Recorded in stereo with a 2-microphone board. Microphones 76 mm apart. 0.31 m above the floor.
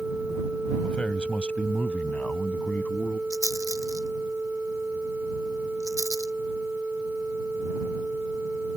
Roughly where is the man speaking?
Centre.